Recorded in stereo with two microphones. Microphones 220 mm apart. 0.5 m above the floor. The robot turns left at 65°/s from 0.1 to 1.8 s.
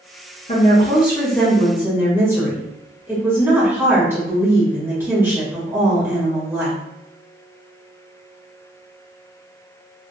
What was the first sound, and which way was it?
A woman speaking, 70° left.